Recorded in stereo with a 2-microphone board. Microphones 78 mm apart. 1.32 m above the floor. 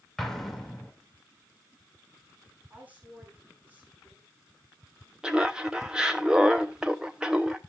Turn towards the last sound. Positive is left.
turn(degrees=-10)  # may be behind; listen again after turning